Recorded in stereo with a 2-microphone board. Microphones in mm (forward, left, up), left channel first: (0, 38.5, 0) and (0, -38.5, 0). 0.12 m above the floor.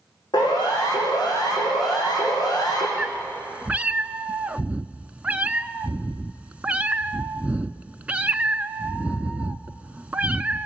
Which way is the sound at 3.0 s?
20° right (ahead or behind).